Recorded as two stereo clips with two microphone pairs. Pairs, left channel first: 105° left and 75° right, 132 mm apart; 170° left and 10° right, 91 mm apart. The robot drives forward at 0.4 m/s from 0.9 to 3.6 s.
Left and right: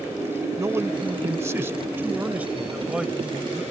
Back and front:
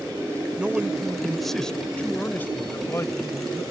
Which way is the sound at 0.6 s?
70° right.